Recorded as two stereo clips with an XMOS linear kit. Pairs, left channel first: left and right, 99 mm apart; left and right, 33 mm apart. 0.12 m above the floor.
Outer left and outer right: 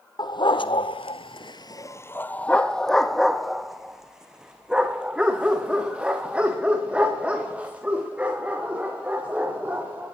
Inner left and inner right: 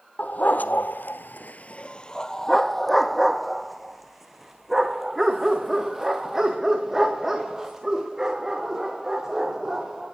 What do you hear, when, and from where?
0.2 s a dog barking: 45° left (ahead or behind), 1.4 m; by 10.1 s 15° right (ahead or behind), 8.5 m